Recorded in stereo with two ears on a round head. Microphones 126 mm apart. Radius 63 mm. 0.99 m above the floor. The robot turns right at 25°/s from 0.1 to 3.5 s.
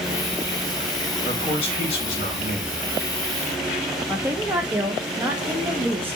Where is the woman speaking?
15° right (ahead or behind), 0.8 m.